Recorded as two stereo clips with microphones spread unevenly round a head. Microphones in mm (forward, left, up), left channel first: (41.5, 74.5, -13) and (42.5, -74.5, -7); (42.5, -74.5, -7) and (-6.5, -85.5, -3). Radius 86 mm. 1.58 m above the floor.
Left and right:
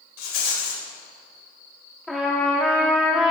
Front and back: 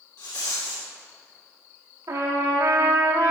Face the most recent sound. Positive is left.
turn(degrees=180)